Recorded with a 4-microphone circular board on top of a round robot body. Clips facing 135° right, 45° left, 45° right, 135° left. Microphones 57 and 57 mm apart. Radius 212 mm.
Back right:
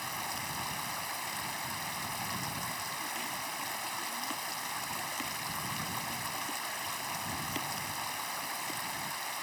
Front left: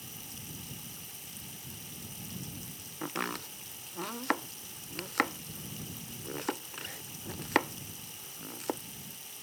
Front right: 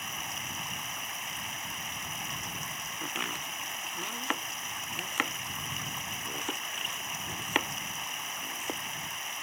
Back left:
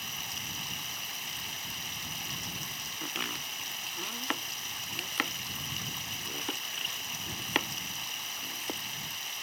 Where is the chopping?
35° left.